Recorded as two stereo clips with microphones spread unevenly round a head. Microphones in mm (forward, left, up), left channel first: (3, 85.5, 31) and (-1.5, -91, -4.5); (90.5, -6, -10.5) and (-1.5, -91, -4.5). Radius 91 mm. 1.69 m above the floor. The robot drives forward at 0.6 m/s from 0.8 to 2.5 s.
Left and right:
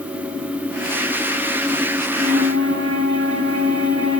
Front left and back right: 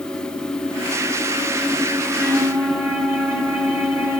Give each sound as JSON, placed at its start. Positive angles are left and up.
{"t": 2.0, "sound": "a flute", "azimuth_deg": -60, "distance_m": 3.0}